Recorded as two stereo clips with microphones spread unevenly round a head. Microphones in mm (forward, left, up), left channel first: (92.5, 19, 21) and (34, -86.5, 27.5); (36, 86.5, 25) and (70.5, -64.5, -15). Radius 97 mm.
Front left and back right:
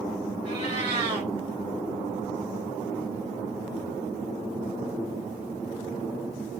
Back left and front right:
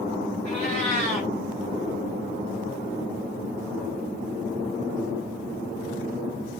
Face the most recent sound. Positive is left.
turn(degrees=-135)